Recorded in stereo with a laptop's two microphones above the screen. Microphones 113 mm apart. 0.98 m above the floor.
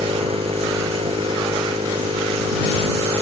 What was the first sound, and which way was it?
A machine running, 60° right (ahead or behind).